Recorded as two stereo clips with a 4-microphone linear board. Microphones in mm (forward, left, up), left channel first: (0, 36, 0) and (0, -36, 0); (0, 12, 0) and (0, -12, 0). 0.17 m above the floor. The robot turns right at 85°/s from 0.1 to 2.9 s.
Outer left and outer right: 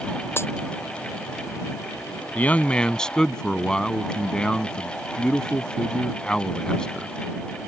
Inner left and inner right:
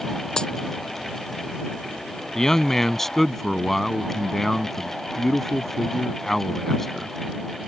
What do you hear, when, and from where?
0.4 s a dropped coin: 30° left (ahead or behind); by 0.5 s 40° left (ahead or behind)
2.4 s a man speaking: 25° left (ahead or behind); by 7.1 s 10° left (ahead or behind)